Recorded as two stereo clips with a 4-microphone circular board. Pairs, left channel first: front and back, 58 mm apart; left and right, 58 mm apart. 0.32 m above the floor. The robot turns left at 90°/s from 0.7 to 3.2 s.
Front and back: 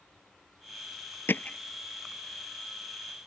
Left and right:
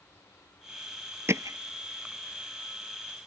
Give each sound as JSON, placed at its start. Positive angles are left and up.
{"t": 1.3, "sound": "hammering", "azimuth_deg": -50}